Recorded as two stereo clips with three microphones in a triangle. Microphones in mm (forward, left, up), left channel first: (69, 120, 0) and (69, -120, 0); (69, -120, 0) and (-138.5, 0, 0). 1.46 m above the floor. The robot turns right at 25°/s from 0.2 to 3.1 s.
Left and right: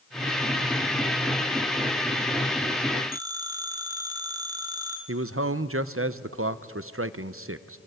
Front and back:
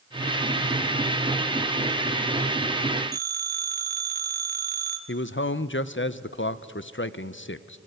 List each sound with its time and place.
3.1 s a phone ringing: 165° right, 2.5 m
5.1 s a man speaking: 65° right, 0.8 m